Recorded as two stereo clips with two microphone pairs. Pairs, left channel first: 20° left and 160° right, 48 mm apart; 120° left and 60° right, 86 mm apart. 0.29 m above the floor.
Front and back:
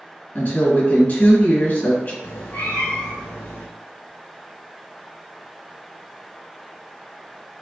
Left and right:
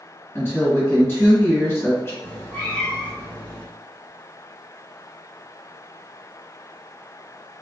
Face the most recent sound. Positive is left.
turn(degrees=50)